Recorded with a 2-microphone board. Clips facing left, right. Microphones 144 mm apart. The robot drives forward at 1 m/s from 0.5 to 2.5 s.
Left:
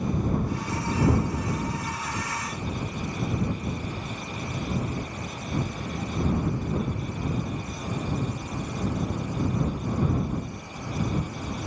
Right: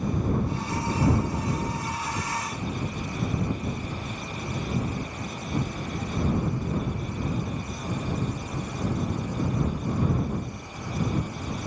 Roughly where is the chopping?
I don't hear chopping.